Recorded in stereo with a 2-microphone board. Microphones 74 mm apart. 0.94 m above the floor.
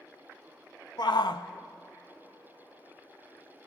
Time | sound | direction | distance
1.0 | a shout | 65° left (ahead or behind) | 0.7 m